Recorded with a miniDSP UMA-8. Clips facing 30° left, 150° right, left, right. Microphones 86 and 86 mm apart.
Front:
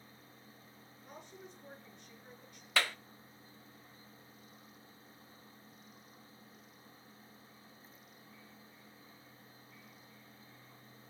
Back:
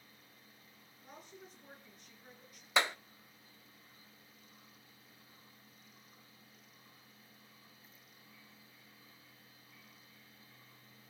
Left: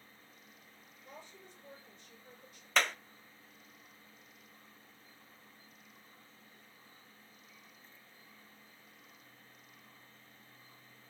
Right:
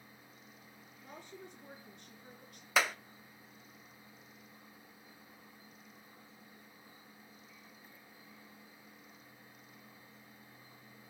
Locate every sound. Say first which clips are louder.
1.0 s a woman speaking: front 2 dB, right 3 dB; 65° right, 6.5 m
2.8 s a clap: back 2 dB, right 1 dB; 160° right, 0.5 m